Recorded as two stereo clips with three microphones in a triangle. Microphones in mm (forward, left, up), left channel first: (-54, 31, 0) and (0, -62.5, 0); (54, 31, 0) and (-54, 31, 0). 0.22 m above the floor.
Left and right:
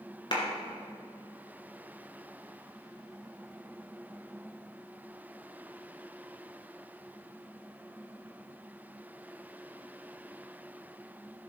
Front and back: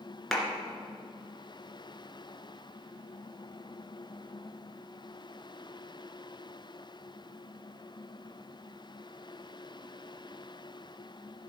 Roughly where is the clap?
Left.